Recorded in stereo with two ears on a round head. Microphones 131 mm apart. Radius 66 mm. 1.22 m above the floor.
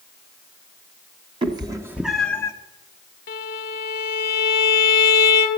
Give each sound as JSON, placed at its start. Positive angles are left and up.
{"t": 1.4, "sound": "a cat meowing", "side_deg": -35, "distance_m": 0.9}
{"t": 3.3, "sound": "a violin", "side_deg": 70, "distance_m": 1.0}